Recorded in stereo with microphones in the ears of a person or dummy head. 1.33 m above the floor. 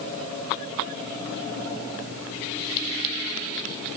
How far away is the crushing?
I don't hear crushing.